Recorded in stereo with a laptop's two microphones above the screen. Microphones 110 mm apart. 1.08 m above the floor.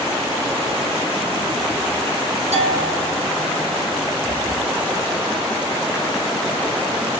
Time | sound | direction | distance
2.5 | a bell | 80° right | 8 m